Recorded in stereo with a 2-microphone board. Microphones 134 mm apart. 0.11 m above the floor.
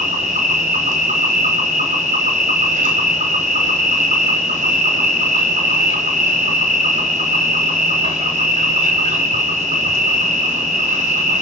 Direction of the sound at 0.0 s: 60° right (ahead or behind).